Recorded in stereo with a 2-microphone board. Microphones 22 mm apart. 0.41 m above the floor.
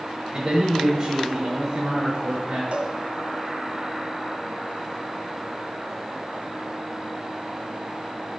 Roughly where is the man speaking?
Right.